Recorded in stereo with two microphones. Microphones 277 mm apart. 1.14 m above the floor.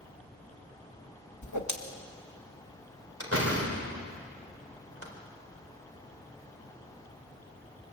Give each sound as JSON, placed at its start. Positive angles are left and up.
{"t": 1.4, "sound": "a whoosh", "side_deg": 75, "distance_m": 1.7}
{"t": 3.2, "sound": "a door slam", "side_deg": -50, "distance_m": 3.5}